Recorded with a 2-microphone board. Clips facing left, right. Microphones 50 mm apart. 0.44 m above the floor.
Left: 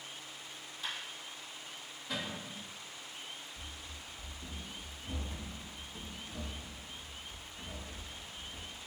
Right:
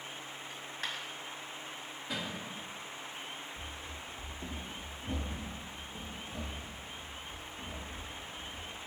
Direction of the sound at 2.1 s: 10° right (ahead or behind).